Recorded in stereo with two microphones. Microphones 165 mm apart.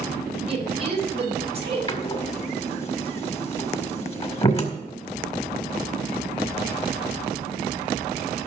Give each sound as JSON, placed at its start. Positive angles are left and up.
{"t": 0.5, "sound": "a woman speaking", "side_deg": -35, "distance_m": 5.0}
{"t": 1.9, "sound": "a door slam", "side_deg": 35, "distance_m": 1.8}